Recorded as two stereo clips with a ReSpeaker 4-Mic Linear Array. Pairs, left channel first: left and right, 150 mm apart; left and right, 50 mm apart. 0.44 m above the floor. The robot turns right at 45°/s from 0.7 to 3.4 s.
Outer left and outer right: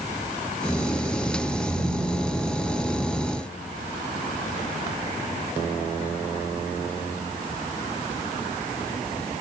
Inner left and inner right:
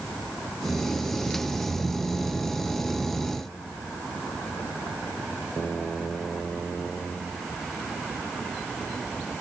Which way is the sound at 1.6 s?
130° right.